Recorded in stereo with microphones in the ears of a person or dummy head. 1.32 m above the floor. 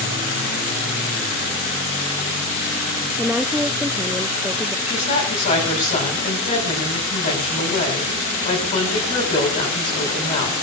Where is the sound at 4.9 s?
40° left (ahead or behind), 8.5 m.